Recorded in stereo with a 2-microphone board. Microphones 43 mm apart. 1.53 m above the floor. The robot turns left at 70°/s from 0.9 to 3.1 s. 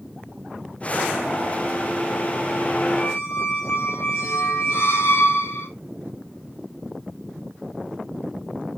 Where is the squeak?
70° left (ahead or behind), 8 m; by 5.7 s 65° left (ahead or behind), 8 m.